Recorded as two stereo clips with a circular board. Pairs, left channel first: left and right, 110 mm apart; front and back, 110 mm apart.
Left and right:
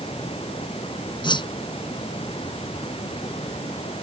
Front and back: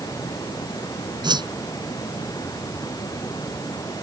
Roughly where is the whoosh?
Behind left.